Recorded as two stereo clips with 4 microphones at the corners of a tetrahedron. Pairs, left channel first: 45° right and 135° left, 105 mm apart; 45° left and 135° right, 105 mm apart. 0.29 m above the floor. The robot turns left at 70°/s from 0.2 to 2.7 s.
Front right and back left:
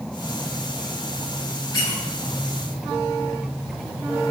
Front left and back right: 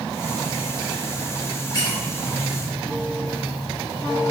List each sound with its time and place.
1.7 s a squeak: 5° left, 1.6 m; by 2.0 s 15° right, 1.6 m